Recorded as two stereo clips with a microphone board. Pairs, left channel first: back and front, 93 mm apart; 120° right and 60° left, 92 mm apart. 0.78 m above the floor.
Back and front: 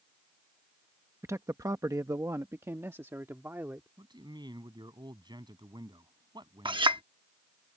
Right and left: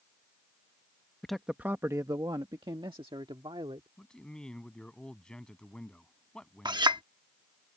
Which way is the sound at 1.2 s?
40° right.